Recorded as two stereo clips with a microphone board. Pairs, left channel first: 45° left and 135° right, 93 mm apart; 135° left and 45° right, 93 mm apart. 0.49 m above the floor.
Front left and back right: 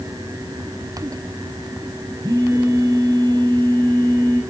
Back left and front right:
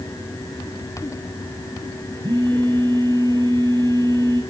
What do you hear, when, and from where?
2.2 s a phone buzzing: 90° right, 5.5 m